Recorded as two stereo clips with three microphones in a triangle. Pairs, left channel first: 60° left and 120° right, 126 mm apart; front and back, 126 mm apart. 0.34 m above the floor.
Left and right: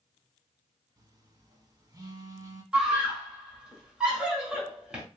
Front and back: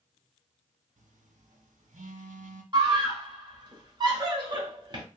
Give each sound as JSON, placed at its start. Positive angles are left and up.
{"t": 1.0, "sound": "a phone buzzing", "azimuth_deg": 180, "distance_m": 0.6}
{"t": 2.7, "sound": "a scream", "azimuth_deg": 160, "distance_m": 1.2}